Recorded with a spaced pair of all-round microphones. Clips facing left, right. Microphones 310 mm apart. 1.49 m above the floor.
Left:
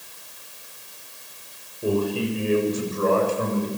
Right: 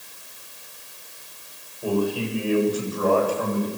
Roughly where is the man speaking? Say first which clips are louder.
Left 1 dB; left.